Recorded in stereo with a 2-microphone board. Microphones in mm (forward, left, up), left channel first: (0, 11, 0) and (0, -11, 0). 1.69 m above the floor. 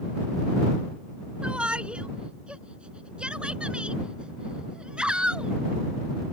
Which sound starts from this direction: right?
A shout, at 1.4 s.